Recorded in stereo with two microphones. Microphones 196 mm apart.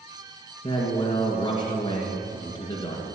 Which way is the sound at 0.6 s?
25° left (ahead or behind).